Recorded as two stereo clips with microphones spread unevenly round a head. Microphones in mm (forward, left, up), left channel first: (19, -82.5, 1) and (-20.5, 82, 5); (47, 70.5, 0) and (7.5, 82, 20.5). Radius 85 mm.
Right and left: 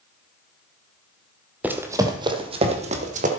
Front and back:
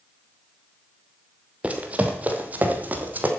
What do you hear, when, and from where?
1.6 s running footsteps: straight behind, 1.4 m; by 3.3 s 145° left, 2 m